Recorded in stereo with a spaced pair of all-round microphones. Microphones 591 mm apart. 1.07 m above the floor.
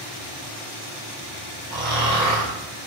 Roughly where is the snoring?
Centre.